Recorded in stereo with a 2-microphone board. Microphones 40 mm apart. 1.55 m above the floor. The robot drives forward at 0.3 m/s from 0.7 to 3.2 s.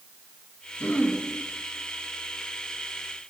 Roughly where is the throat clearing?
Left.